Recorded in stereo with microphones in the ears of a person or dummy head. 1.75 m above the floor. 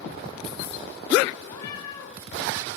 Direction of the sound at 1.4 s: 20° left (ahead or behind).